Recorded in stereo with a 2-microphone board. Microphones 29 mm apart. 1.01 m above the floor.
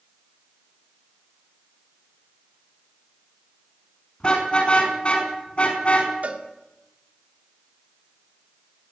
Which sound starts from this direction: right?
A cowbell, at 6.2 s.